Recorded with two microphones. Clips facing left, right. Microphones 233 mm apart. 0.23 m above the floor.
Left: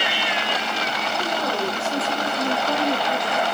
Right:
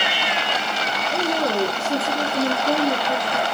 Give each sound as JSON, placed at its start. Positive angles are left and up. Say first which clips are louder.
{"t": 1.1, "sound": "a woman speaking", "louder": "right 6 dB", "side_deg": -50, "distance_m": 5.5}